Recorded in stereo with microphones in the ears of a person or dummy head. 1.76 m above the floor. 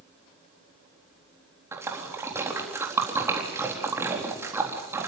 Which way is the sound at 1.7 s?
10° right (ahead or behind).